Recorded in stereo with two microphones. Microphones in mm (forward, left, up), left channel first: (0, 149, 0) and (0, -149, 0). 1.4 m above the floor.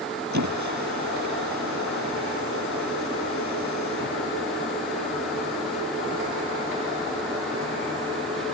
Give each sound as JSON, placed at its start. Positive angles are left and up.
{"t": 0.3, "sound": "a squeak", "side_deg": -90}